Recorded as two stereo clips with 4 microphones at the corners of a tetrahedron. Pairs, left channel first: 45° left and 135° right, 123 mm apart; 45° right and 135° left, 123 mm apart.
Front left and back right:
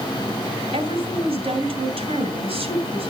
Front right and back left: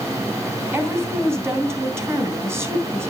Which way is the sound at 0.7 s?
160° right.